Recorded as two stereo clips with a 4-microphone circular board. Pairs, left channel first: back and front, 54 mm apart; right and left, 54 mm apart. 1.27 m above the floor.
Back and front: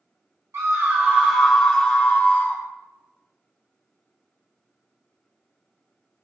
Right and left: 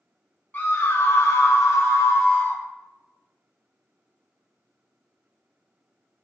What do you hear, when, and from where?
0.5 s a scream: 30° right, 1.0 m; by 2.6 s 145° right, 1.1 m